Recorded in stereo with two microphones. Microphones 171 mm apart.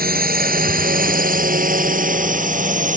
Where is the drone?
65° right (ahead or behind); by 3.0 s 50° right (ahead or behind).